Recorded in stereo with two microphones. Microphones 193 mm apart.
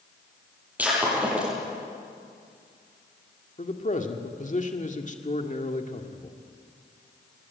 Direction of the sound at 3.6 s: 40° left (ahead or behind).